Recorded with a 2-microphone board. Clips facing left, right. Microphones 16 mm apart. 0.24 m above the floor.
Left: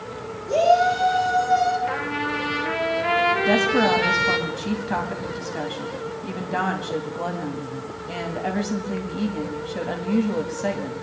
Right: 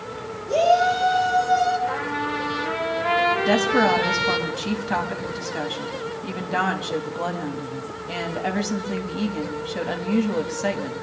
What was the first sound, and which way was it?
A shout, 15° left (ahead or behind).